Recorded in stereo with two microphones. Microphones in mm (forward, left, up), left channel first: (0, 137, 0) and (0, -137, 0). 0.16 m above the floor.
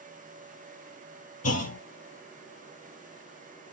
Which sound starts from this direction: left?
A clunk, at 1.4 s.